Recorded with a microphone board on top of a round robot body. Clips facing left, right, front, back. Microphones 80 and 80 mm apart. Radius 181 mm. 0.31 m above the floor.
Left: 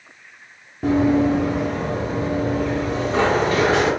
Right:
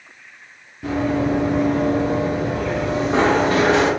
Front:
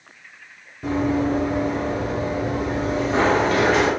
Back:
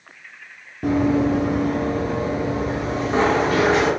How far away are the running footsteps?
About 0.5 m.